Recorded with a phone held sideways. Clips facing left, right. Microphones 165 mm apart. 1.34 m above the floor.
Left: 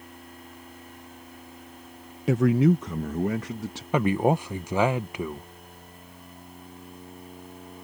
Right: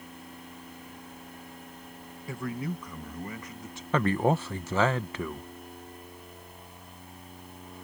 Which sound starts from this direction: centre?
A man speaking, at 3.9 s.